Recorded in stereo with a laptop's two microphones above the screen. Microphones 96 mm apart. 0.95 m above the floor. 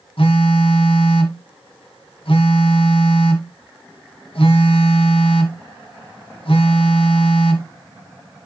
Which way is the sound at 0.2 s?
70° left (ahead or behind).